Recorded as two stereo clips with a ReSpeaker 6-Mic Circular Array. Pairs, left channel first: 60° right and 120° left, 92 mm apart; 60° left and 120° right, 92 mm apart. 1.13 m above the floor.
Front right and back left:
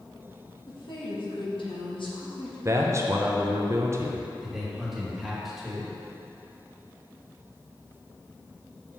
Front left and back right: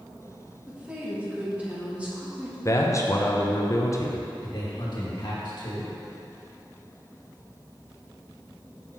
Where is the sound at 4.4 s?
30° left, 1.8 m.